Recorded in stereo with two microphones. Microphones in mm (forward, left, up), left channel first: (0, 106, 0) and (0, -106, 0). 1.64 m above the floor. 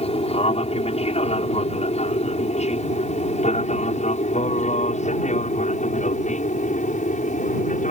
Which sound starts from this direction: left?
An aircraft, at 0.0 s.